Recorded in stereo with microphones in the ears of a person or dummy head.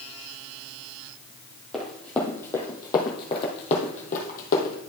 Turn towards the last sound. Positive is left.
turn(degrees=45)  # may be behind; listen again after turning